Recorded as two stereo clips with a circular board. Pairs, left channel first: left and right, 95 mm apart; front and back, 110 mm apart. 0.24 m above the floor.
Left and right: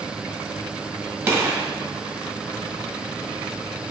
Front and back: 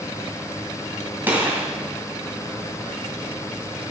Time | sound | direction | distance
1.3 | a gunshot | 135° right | 1.5 m